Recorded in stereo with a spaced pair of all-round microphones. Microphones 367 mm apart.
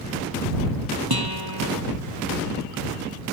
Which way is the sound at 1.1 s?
80° right.